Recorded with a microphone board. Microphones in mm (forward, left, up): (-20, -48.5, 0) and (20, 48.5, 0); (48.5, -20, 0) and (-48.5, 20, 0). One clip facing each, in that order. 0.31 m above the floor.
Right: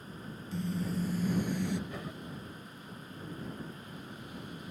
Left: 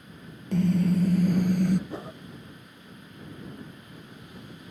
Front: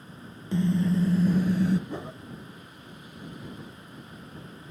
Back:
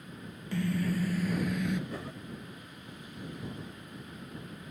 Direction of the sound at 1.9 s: 25° left.